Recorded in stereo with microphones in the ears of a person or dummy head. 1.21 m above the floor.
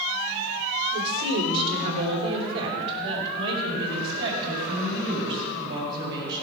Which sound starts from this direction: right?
A woman speaking, at 0.9 s.